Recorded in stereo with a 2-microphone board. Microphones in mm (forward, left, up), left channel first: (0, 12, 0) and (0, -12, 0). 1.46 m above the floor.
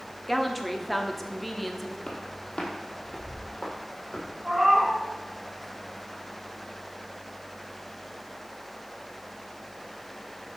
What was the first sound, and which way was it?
A woman speaking, centre (ahead or behind).